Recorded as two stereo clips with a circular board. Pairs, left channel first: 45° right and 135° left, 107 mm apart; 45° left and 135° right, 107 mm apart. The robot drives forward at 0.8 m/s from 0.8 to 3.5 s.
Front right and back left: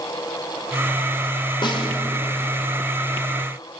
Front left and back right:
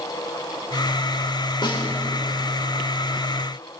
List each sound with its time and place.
1.6 s a snare drum: straight ahead, 3 m